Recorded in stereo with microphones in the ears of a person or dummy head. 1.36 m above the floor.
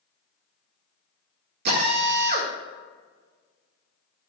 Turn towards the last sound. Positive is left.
turn(degrees=-65)  # may be behind; listen again after turning